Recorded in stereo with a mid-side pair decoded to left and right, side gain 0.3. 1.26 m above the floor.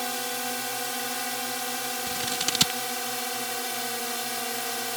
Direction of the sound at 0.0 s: Straight ahead.